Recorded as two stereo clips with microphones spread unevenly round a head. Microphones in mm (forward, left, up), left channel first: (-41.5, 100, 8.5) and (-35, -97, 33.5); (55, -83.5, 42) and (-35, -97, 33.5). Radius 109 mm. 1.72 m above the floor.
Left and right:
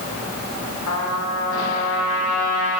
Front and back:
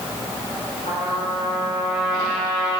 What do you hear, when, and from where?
0.9 s a trumpet: 65° left, 3 m